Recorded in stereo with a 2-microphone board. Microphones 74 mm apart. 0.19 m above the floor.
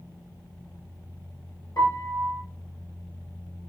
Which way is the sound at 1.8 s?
55° left (ahead or behind).